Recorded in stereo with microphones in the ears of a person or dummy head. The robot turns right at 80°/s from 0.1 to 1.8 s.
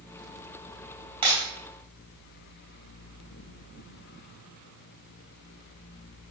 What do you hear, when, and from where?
1.2 s breaking glass: 30° right (ahead or behind), 5 m; by 1.4 s 40° right (ahead or behind), 5 m